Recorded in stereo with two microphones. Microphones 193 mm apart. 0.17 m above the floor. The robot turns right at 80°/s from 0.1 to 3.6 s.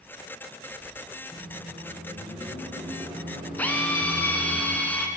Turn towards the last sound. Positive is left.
turn(degrees=10)  # may be behind; listen again after turning